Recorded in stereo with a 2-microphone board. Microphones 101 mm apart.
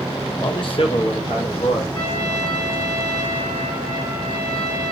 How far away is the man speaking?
About 0.6 m.